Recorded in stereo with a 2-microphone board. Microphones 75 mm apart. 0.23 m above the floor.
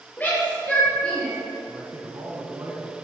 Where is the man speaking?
35° right (ahead or behind), 1.9 m.